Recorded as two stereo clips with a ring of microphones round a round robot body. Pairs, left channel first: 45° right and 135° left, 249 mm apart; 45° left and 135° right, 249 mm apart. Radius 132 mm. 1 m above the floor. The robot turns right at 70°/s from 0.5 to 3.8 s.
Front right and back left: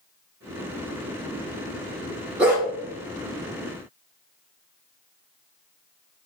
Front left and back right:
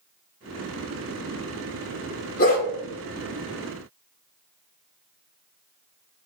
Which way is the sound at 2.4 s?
55° left.